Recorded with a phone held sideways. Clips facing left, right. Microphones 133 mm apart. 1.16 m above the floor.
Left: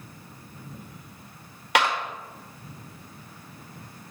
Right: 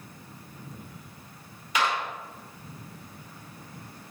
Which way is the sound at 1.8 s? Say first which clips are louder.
Left 4 dB; 80° left.